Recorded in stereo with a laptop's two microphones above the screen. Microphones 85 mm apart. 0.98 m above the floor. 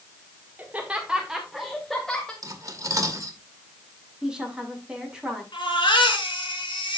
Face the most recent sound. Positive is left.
turn(degrees=75)  # may be behind; listen again after turning